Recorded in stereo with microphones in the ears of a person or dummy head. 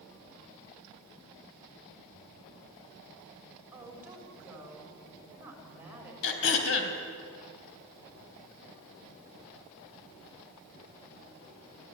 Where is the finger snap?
I don't hear a finger snap.